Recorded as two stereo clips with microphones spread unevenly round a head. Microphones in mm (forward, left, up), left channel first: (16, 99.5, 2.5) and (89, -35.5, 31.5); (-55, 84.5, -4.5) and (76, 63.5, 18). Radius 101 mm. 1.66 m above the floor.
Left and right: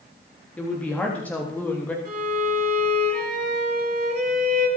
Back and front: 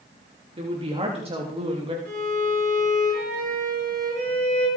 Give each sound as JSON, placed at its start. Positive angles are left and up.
{"t": 0.6, "sound": "a woman speaking", "azimuth_deg": 35, "distance_m": 3.5}
{"t": 2.0, "sound": "a violin", "azimuth_deg": -45, "distance_m": 5.0}